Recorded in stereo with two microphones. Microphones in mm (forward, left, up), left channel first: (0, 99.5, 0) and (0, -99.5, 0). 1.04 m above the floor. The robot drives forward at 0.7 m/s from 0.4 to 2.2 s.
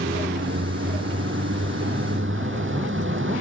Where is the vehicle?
65° right (ahead or behind); by 3.4 s 70° right (ahead or behind).